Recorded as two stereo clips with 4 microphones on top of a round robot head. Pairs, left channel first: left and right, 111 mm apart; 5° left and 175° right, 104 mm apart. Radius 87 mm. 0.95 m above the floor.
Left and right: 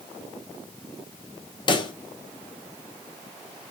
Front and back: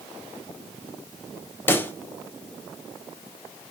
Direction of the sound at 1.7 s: 65° left.